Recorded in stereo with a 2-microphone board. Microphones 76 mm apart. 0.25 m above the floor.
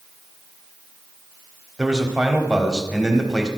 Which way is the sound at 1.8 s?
10° right (ahead or behind).